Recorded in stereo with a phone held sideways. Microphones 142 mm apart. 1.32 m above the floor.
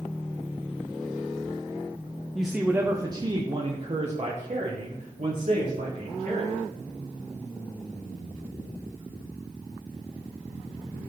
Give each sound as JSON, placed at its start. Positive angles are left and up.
{"t": 2.4, "sound": "a man speaking", "side_deg": 0, "distance_m": 0.7}